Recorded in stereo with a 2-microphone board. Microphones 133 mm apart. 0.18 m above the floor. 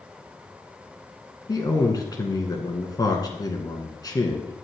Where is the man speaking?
30° left (ahead or behind), 1.6 m.